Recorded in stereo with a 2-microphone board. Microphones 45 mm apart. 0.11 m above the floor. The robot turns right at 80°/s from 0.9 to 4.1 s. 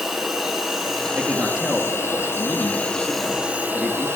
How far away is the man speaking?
About 1.8 m.